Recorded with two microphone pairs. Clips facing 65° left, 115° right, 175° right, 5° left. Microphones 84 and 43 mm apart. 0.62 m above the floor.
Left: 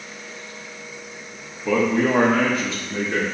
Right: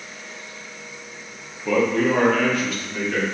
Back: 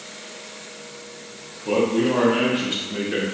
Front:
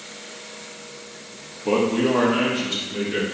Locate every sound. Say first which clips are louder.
1.6 s a man speaking: even, even; 20° right, 0.6 m; by 3.2 s 130° left, 1.3 m